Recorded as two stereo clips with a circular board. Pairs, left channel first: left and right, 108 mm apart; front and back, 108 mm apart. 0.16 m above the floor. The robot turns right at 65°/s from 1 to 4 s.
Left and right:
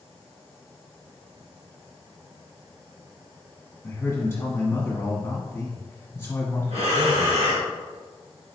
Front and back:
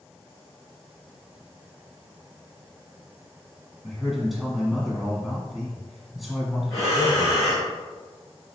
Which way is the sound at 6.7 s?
90° right.